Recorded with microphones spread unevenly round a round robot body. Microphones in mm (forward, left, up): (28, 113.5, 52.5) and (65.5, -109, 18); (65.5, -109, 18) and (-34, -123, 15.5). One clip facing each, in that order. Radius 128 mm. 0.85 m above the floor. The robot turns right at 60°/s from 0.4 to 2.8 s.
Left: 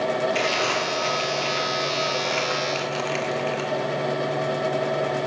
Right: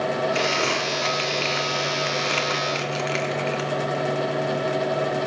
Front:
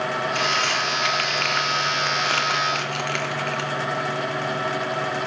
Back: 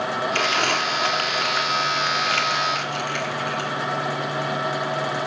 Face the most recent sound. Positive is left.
turn(degrees=-15)